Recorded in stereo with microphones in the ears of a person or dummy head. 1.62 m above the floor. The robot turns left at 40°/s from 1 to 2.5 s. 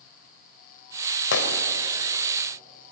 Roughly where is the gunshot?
Left.